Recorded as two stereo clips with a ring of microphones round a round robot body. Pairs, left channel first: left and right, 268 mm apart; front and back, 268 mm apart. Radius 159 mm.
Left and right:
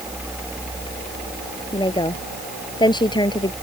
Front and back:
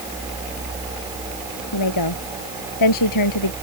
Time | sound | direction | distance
1.7 | a woman speaking | 15° left | ?